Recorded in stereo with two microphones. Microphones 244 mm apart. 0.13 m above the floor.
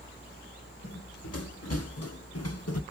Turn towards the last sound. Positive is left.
turn(degrees=85)